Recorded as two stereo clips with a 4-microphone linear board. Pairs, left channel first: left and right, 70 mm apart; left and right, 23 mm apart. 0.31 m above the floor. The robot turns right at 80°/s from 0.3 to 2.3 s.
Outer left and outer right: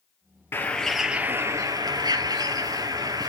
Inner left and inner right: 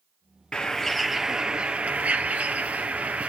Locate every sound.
0.5 s a bird: 145° left, 1.9 m; by 3.3 s 70° right, 1.9 m